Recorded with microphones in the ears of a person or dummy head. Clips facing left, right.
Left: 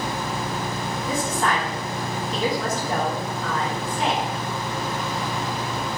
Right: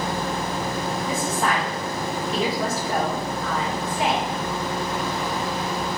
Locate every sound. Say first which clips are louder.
1.1 s a woman speaking: left 2 dB; 5° right (ahead or behind), 0.9 m